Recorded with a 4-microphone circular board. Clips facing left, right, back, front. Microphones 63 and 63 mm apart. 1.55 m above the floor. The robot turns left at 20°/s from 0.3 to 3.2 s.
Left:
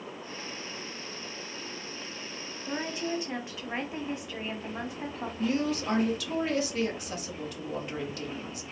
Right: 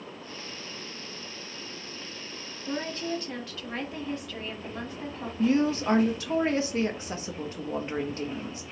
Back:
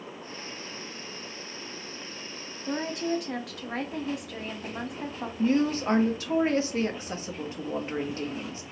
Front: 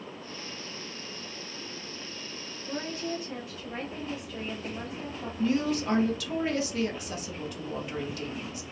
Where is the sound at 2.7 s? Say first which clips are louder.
Right 1 dB, back 5 dB; 170° left, 0.9 m; by 5.3 s 160° left, 0.9 m.